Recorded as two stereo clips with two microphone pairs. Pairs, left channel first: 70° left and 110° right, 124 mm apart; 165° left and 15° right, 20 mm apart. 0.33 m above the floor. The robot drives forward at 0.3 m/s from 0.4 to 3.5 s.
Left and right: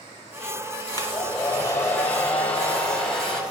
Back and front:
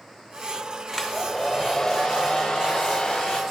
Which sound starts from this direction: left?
A hair dryer, at 0.9 s.